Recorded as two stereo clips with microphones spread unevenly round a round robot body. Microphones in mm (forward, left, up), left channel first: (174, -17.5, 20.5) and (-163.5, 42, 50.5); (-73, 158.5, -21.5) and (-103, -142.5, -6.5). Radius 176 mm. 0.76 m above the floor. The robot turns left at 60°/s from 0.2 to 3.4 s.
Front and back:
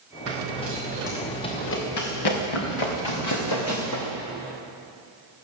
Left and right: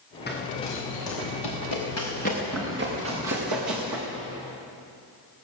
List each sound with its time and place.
0.3 s running footsteps: 145° left, 5 m; by 4.1 s 65° right, 6 m